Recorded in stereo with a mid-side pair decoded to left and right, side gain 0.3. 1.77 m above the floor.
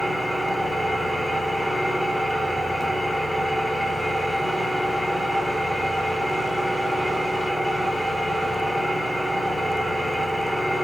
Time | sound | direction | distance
0.0 | an engine running | 10° left | 5.5 m